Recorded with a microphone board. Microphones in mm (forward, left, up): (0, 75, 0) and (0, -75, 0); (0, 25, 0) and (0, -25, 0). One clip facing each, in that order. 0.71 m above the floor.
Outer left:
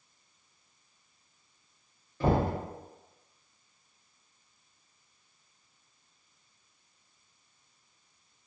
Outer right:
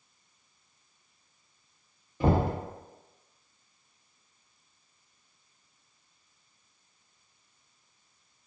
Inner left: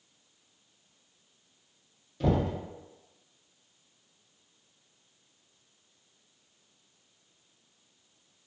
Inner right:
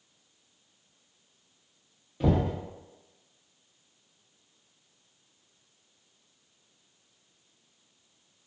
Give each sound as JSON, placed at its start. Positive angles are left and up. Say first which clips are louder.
{"t": 2.2, "sound": "knocking", "louder": "outer right 1 dB, inner right 1 dB", "side_deg": -15, "distance_m": 0.7}